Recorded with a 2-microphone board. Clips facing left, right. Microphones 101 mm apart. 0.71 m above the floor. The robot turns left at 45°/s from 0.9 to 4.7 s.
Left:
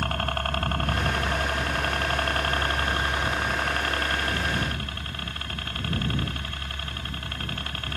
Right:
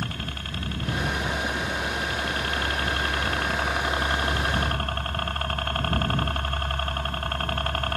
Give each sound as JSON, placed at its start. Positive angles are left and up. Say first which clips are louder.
{"t": 0.0, "sound": "a helicopter", "louder": "left 6 dB", "azimuth_deg": 120}